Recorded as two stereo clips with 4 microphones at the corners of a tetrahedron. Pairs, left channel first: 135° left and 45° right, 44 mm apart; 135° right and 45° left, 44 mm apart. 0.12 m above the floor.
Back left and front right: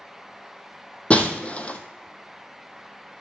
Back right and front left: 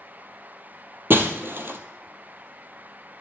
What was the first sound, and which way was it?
Breaking glass, 75° left.